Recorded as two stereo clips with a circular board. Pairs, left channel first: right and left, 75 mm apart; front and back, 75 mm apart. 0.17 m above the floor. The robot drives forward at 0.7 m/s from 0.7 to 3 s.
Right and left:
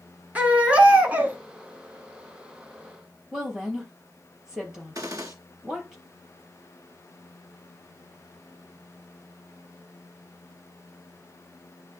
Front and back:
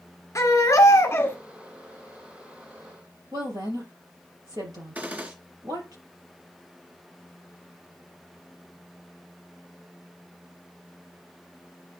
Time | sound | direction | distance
0.3 | a baby crying | 25° left | 1.2 m
3.3 | a woman speaking | 175° left | 3.5 m
5.0 | a gunshot | 115° left | 0.8 m